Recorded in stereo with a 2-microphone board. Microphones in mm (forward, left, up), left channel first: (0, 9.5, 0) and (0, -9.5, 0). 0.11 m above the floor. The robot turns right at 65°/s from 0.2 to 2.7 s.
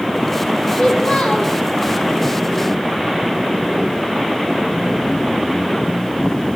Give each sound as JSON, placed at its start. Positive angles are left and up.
{"t": 0.7, "sound": "a child speaking", "azimuth_deg": 35, "distance_m": 2.5}